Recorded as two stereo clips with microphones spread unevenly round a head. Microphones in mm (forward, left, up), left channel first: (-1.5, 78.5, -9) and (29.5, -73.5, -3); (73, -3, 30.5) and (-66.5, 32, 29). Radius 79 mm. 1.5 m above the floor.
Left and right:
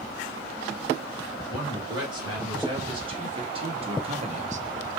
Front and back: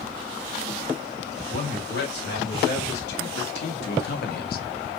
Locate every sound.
1.5 s a man speaking: 15° right, 3 m; by 4.7 s 40° right, 0.6 m